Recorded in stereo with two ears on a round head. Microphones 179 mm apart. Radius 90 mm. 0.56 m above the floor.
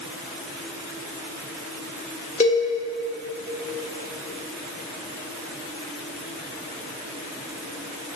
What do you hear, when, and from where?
2.4 s a cowbell: 35° left (ahead or behind), 1.4 m